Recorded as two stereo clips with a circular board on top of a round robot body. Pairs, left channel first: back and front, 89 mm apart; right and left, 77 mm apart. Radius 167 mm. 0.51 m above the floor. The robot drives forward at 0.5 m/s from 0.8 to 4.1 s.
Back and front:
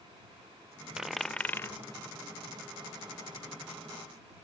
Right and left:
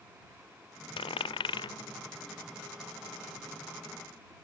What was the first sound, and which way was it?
A dropped coin, 85° right.